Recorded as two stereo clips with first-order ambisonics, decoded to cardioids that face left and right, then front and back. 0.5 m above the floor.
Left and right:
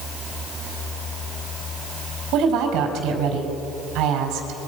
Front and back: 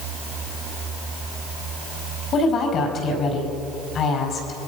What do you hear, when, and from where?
2.3 s a woman speaking: 55° right, 4.5 m